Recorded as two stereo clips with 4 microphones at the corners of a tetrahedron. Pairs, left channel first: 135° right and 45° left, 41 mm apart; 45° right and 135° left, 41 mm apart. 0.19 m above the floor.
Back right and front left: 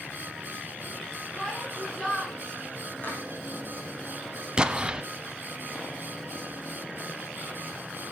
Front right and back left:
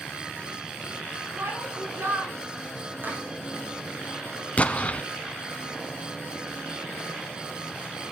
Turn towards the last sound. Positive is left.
turn(degrees=-10)